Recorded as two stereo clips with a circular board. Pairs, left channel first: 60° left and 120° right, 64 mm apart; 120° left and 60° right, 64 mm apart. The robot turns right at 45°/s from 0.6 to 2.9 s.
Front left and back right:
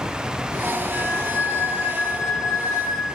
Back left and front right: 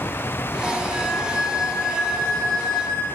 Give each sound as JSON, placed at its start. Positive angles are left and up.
{"t": 0.9, "sound": "a flute", "azimuth_deg": -95, "distance_m": 2.0}